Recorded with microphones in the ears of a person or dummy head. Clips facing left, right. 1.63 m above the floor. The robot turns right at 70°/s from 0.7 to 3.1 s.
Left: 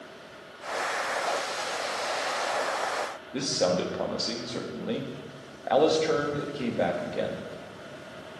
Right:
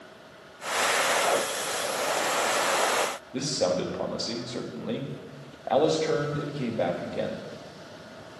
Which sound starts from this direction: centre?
A man speaking, at 3.3 s.